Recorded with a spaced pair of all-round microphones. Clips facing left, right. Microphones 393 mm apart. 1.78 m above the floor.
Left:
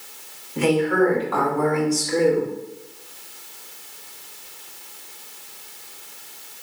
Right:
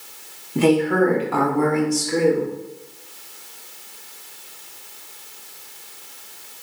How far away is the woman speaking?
About 1.0 m.